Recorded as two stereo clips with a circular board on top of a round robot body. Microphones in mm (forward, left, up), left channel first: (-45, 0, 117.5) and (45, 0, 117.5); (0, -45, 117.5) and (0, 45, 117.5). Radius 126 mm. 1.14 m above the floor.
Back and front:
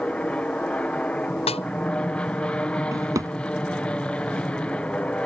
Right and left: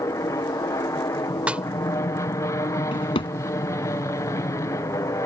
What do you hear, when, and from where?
0.0 s an aircraft: 110° right
1.5 s a snare drum: 170° left
2.9 s a drawer: 60° right